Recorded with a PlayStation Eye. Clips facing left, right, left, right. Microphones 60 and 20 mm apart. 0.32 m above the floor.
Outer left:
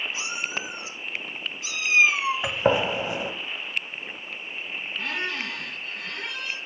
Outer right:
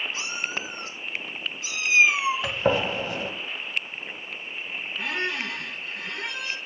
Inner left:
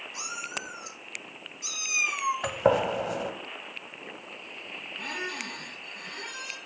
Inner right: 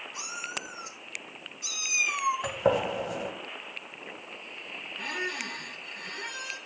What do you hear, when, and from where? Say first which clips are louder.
0.1 s a cat meowing: even, inner left 1 dB; 20° left (ahead or behind), 2.5 m; by 2.5 s 10° right (ahead or behind), 2.5 m
2.4 s a gunshot: outer left 1 dB, inner left 6 dB; 15° left (ahead or behind), 1.2 m
5.0 s a squeak: outer right 2 dB, inner right 2 dB; 5° right (ahead or behind), 2.5 m